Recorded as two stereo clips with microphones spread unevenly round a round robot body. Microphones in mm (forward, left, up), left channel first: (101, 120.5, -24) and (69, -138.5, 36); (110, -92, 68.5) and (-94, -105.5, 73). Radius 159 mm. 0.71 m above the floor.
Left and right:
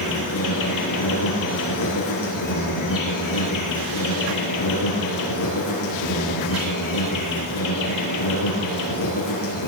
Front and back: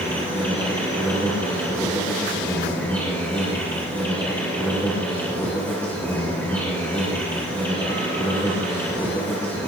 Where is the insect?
85° left, 5.5 m.